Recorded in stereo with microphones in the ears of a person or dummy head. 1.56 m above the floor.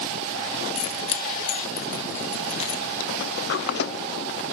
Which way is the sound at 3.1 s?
60° left (ahead or behind).